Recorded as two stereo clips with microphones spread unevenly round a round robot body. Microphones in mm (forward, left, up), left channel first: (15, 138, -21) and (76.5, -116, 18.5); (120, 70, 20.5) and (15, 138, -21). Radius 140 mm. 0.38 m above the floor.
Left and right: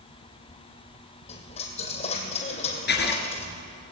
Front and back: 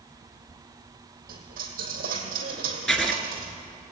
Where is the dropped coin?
175° left, 2.0 m.